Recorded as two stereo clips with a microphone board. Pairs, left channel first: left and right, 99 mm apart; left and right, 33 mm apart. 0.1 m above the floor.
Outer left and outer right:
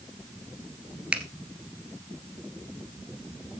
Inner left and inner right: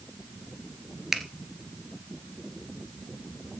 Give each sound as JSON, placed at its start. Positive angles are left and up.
{"t": 1.1, "sound": "a finger snap", "side_deg": -10, "distance_m": 1.8}